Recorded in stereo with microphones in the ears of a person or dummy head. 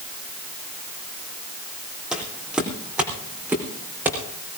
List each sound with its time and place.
2.1 s footsteps: 5° right (ahead or behind), 4 m; by 4.2 s 10° right (ahead or behind), 5.5 m